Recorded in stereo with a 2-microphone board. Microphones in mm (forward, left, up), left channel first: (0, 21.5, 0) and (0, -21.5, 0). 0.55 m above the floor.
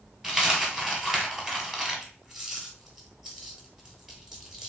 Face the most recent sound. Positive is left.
turn(degrees=-10)  # may be behind; listen again after turning